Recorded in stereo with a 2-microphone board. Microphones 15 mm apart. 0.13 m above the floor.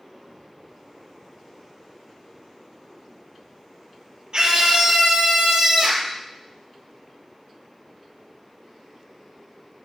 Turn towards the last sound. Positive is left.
turn(degrees=-55)  # may be behind; listen again after turning